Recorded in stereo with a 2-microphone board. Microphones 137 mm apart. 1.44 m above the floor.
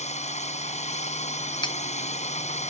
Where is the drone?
60° left (ahead or behind).